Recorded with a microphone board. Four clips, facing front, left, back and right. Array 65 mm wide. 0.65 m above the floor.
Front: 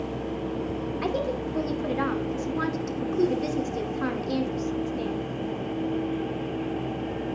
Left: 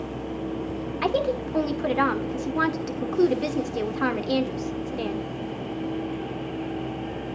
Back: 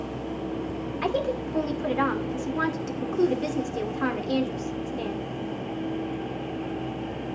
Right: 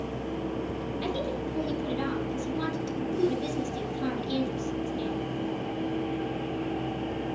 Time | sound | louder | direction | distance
1.0 | a woman speaking | left 9 dB, back 3 dB | 100° left | 2.5 m